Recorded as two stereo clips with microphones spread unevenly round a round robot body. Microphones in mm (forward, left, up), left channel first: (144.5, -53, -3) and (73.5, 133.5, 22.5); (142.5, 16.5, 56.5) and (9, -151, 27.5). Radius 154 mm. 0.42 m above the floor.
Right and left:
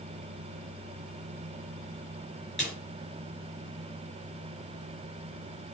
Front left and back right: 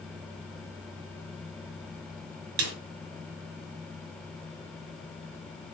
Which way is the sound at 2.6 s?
160° right.